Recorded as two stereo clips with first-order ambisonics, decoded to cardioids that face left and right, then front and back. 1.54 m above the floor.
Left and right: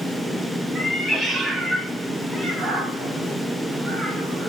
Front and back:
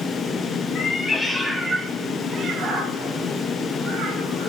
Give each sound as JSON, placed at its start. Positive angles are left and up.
{"t": 0.8, "sound": "a cat meowing", "azimuth_deg": -20, "distance_m": 0.8}